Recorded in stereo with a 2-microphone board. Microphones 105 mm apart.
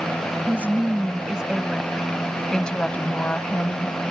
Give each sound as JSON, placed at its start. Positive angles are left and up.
{"t": 0.5, "sound": "a woman speaking", "side_deg": -15}